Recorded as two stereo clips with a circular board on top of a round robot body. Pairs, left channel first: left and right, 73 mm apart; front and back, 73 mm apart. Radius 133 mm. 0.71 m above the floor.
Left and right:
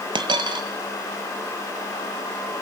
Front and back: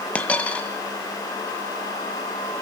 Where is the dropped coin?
75° right, 1.4 m.